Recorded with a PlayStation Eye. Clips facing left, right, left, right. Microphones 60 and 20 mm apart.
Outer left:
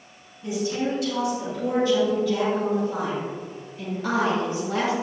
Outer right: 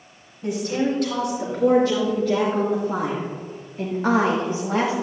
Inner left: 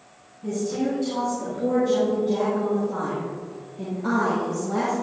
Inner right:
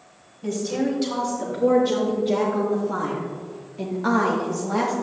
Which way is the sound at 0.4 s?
65° right (ahead or behind).